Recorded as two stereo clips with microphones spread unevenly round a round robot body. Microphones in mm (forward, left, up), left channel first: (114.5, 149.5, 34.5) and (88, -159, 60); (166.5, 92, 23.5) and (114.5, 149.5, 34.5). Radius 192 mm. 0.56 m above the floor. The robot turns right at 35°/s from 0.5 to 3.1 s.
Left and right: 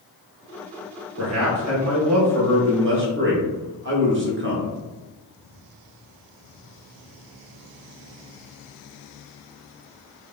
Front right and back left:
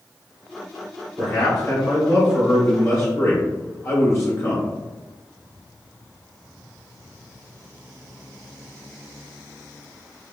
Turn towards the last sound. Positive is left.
turn(degrees=-55)